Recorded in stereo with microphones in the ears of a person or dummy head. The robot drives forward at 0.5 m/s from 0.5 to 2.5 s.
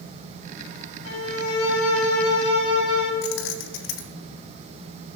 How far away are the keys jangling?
About 1.2 m.